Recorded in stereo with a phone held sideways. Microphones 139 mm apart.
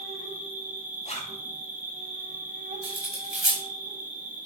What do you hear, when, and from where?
0.0 s an insect: 65° right (ahead or behind), 1.7 m
1.1 s a zipper: 50° left (ahead or behind), 1.7 m
2.8 s cutlery clinking: 5° right (ahead or behind), 3.5 m